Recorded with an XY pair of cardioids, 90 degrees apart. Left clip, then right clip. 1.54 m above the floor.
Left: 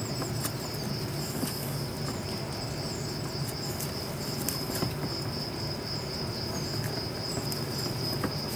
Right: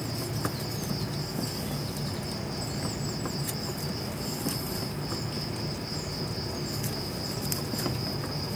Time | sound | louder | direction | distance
0.0 | an insect | right 1 dB | 10° right | 8 m